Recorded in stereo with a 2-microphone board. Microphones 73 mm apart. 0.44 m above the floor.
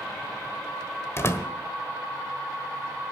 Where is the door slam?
35° left (ahead or behind), 1.3 m.